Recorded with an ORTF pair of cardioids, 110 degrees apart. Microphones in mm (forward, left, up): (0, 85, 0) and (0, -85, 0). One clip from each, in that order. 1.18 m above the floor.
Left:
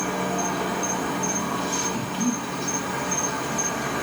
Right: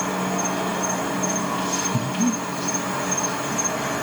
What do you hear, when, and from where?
0.0 s an insect: 15° right, 0.8 m
1.9 s breathing: 45° right, 0.7 m